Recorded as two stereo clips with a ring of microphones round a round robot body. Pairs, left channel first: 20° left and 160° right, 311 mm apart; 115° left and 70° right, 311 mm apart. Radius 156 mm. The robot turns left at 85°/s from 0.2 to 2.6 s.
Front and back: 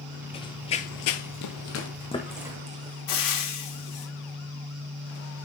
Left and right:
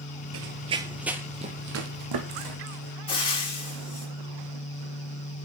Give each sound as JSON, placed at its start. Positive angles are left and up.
{"t": 0.3, "sound": "running footsteps", "azimuth_deg": -45, "distance_m": 0.6}
{"t": 3.1, "sound": "frying", "azimuth_deg": 40, "distance_m": 3.0}